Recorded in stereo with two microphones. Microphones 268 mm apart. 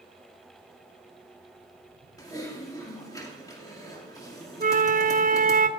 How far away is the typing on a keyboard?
About 2.5 m.